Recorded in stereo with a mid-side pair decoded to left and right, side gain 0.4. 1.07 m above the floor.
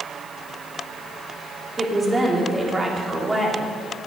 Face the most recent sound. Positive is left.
turn(degrees=-25)